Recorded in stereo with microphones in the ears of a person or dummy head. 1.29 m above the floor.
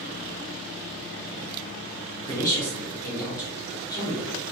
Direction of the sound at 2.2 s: 20° left (ahead or behind).